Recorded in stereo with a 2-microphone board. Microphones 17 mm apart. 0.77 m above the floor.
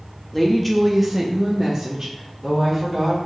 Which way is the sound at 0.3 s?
10° left (ahead or behind).